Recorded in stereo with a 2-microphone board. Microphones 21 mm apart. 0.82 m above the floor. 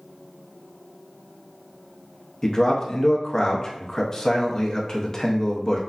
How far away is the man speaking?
About 0.8 m.